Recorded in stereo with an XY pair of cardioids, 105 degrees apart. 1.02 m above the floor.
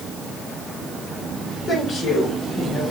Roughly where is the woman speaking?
Ahead left.